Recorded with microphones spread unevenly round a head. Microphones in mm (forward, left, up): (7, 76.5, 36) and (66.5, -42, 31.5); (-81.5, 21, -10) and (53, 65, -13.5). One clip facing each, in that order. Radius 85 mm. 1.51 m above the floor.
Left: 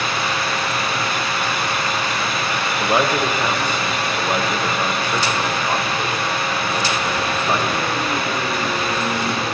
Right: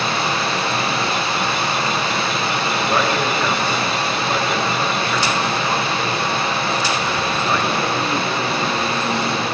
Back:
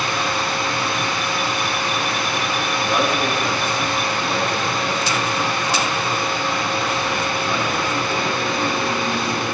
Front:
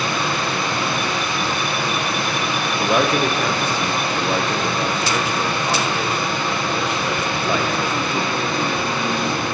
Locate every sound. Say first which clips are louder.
0.0 s a machine running: right 2 dB, front 1 dB; straight ahead, 1.1 m
2.8 s a man speaking: left 2 dB, front 4 dB; 45° left, 1.0 m